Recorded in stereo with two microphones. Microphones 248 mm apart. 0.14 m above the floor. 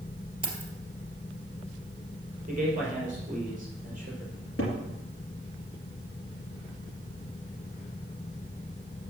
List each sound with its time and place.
0.4 s keys jangling: 25° right (ahead or behind), 2.5 m
2.5 s a man speaking: 35° right (ahead or behind), 3.5 m
4.3 s a cupboard door: 65° left (ahead or behind), 3 m